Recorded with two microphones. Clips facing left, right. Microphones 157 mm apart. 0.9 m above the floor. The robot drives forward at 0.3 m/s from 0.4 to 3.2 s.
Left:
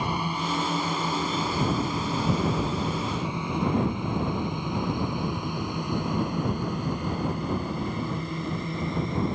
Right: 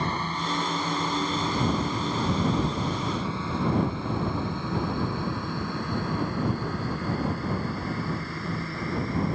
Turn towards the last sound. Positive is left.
turn(degrees=20)  # may be behind; listen again after turning